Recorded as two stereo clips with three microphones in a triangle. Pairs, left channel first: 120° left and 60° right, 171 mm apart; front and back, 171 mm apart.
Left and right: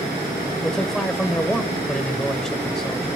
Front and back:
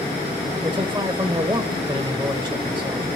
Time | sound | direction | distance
0.6 | a man speaking | 155° right | 1.0 m